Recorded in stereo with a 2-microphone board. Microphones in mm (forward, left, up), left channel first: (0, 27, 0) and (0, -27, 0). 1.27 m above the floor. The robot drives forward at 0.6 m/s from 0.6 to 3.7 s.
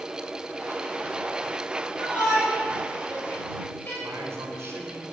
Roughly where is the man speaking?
Right.